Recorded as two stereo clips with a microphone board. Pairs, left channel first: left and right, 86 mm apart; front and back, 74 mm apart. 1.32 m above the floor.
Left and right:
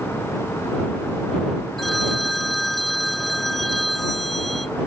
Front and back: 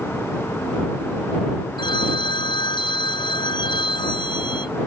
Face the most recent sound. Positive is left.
turn(degrees=0)